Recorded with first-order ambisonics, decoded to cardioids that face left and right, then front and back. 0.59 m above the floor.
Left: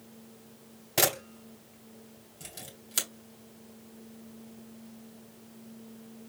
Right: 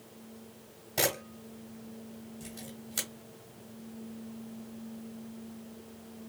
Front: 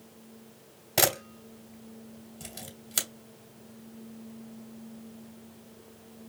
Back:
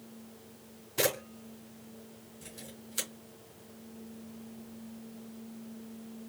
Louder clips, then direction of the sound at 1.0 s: Left 3 dB, front 4 dB; 25° left.